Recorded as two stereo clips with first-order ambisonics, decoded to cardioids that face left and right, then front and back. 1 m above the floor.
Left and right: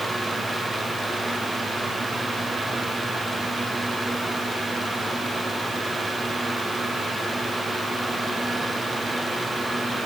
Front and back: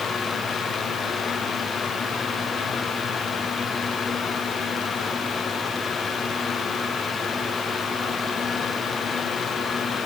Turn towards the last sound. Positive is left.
No sound to turn to.